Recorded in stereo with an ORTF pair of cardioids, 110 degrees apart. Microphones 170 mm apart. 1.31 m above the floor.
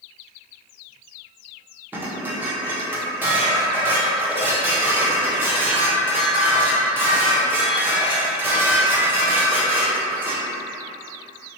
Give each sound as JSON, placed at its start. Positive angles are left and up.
{"t": 1.9, "sound": "dishes clattering", "azimuth_deg": -15, "distance_m": 0.9}